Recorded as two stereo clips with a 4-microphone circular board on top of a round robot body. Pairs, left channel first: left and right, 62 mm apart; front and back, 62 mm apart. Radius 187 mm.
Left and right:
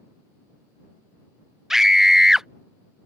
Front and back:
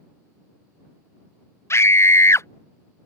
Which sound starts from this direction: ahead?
A scream, at 1.7 s.